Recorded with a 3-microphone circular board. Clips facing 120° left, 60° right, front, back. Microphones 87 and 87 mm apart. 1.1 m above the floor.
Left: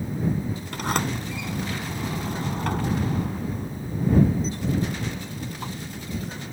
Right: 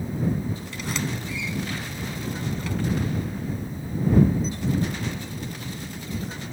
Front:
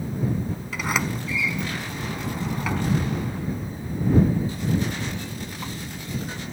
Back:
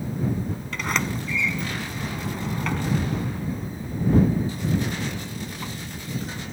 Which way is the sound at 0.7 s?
85° left.